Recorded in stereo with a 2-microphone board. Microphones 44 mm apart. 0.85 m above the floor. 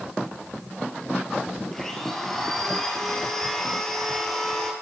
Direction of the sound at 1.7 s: 10° left (ahead or behind).